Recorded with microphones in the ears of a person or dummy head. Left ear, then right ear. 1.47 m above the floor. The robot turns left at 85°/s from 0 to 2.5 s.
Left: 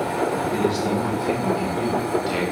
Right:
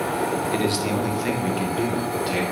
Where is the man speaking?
35° right, 1.4 m; by 2.4 s 160° left, 1.4 m.